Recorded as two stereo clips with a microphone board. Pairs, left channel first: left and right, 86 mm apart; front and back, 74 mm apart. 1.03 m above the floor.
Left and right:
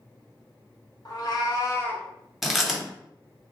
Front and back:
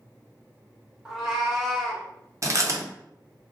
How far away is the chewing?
About 0.6 m.